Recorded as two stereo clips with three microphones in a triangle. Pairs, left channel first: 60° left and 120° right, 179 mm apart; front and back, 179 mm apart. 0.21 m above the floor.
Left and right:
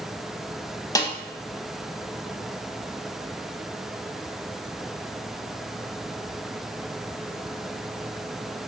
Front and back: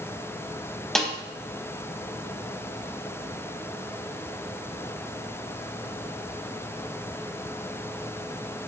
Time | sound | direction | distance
0.9 | a snare drum | 85° left | 0.5 m